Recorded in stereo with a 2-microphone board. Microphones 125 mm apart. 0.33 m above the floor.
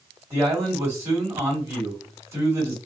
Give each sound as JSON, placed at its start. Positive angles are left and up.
{"t": 0.3, "sound": "a man speaking", "side_deg": -20, "distance_m": 2.0}